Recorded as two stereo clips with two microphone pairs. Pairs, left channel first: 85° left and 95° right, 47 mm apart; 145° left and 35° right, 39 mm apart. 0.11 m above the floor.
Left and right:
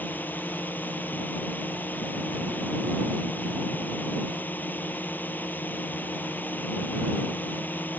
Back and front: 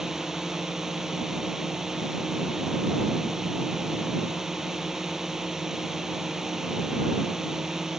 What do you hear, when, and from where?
0.0 s a drone: 45° left